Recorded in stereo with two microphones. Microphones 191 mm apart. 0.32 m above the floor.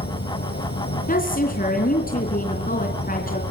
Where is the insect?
60° left (ahead or behind), 4 m.